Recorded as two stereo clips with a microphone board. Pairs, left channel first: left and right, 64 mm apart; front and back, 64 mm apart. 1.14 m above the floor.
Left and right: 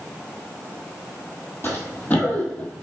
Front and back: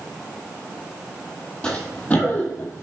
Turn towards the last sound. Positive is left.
turn(degrees=25)